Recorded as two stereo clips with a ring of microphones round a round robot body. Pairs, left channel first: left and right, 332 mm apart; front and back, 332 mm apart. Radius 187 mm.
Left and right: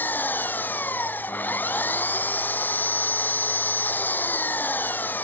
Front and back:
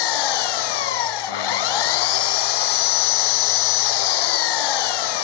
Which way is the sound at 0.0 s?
5° left.